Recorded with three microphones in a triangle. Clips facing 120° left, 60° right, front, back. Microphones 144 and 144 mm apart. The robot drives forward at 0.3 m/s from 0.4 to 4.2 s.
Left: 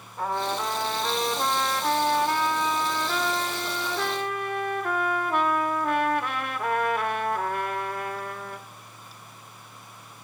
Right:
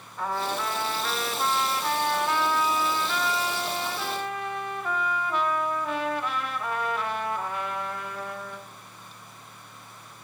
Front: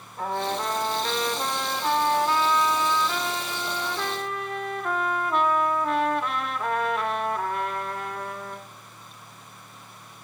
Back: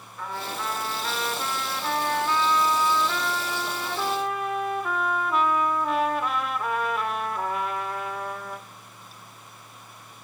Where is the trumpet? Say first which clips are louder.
Left 1 dB, front 6 dB; 45° left, 1.6 m; by 8.7 s 95° left, 1.2 m.